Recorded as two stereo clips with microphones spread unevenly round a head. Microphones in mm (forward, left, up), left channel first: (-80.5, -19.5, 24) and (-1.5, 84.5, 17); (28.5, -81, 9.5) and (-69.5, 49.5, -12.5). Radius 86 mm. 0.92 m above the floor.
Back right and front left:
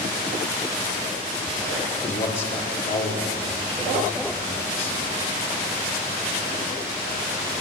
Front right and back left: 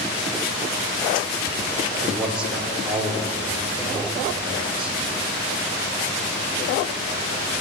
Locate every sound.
2.0 s a man speaking: 150° right, 2 m